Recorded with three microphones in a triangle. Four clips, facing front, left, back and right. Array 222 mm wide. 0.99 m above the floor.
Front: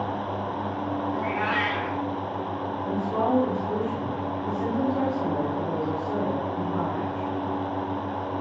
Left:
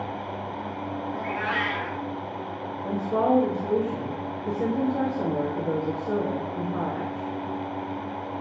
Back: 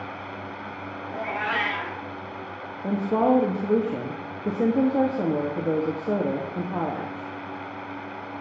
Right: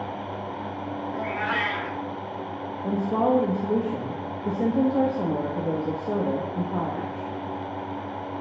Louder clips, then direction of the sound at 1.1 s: Right 1 dB, back 2 dB; straight behind.